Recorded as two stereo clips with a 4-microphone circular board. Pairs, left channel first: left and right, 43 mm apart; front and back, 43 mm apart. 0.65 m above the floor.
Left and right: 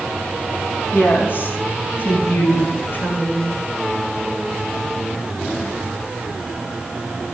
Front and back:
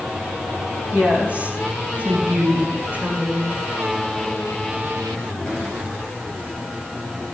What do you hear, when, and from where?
0.9 s a woman speaking: 120° left, 4 m; by 3.5 s 125° left, 6.5 m